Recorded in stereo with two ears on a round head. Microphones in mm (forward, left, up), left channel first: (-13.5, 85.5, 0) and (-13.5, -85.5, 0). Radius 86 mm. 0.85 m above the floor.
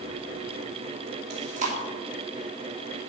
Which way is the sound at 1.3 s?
40° right (ahead or behind).